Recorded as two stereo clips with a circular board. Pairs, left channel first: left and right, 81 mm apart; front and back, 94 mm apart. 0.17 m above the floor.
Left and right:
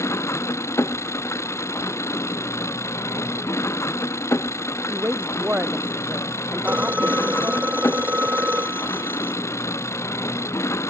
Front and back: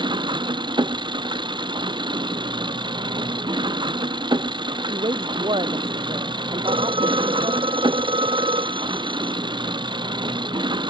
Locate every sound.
0.0 s an engine running: 145° left
4.9 s a woman speaking: 160° right
6.6 s a phone ringing: 160° right